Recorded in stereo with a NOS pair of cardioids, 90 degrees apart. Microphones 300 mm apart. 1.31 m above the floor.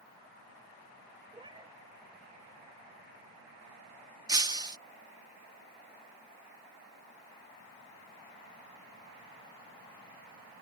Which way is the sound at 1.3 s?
15° right.